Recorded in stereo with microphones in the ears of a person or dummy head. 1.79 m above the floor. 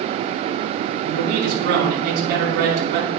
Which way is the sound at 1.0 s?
55° right (ahead or behind).